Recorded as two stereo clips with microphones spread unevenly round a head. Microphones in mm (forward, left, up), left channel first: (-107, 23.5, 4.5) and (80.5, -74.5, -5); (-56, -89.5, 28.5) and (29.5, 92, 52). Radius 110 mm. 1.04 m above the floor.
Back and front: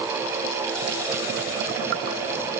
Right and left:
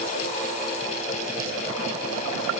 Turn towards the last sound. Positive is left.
No sound to turn to.